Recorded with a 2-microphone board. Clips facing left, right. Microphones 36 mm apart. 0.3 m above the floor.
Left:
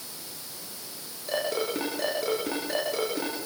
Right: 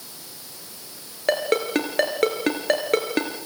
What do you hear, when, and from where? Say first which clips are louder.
1.3 s a ringtone: right 7 dB; 70° right (ahead or behind), 3.5 m